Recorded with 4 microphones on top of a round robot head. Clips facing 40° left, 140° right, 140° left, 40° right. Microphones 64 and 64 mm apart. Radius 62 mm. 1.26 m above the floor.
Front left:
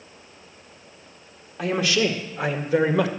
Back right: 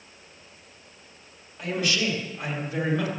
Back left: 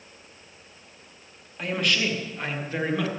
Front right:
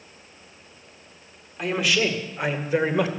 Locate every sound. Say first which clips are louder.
1.6 s a man speaking: front left 5 dB, front right 3 dB; 45° left, 2 m; by 3.1 s 25° left, 1.6 m